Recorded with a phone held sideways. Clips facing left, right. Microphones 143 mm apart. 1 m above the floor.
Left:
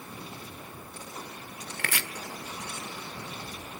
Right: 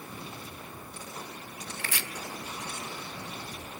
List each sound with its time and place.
1.8 s chopping: 70° left (ahead or behind), 1.4 m